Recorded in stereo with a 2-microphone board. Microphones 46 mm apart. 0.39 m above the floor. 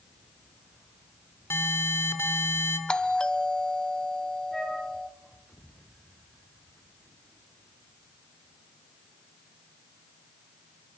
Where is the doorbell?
20° left (ahead or behind), 1.3 m.